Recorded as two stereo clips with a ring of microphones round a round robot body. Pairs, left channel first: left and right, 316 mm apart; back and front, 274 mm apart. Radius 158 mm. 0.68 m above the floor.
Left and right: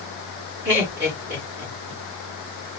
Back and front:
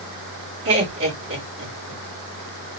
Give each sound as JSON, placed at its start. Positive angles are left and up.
{"t": 0.7, "sound": "laughter", "azimuth_deg": -40, "distance_m": 1.9}